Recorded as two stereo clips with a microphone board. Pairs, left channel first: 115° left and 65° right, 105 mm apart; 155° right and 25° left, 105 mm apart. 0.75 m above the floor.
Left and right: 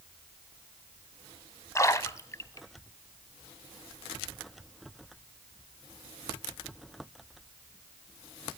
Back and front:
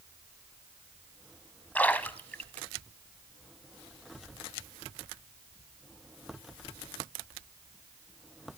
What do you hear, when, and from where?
1.8 s a splash: 140° left, 0.7 m